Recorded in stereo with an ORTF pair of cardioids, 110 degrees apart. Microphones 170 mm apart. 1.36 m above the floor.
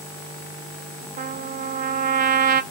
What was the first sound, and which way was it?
A trumpet, 50° right.